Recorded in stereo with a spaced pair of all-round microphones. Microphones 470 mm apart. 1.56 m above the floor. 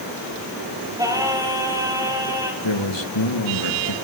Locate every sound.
1.0 s singing: 5° right (ahead or behind), 5 m
2.6 s a man speaking: 65° left (ahead or behind), 2 m